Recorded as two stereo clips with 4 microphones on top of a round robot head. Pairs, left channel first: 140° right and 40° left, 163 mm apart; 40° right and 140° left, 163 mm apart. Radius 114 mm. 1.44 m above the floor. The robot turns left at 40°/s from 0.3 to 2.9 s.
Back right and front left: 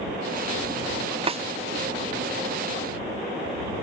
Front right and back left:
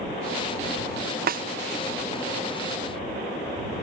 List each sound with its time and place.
1.3 s a snare drum: 100° left; by 1.4 s 95° left